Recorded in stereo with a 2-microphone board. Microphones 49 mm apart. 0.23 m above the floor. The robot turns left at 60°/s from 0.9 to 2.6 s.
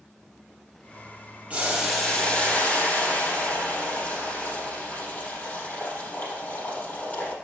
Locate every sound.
1.5 s boiling: 150° right, 4 m; by 7.3 s 145° left, 4 m